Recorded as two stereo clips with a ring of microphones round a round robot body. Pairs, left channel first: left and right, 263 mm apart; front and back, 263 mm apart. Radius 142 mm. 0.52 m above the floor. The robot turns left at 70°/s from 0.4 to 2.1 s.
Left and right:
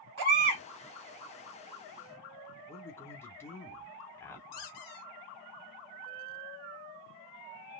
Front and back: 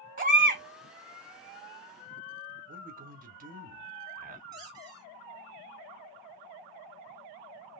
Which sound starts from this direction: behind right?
A baby crying, at 0.2 s.